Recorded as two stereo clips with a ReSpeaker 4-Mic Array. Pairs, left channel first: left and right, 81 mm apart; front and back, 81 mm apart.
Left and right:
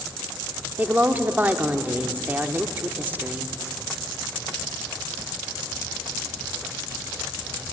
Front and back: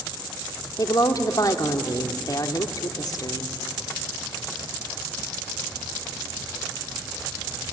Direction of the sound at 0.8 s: 25° right.